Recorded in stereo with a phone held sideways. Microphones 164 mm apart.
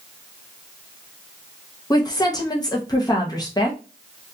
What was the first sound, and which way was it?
A woman speaking, 25° left (ahead or behind).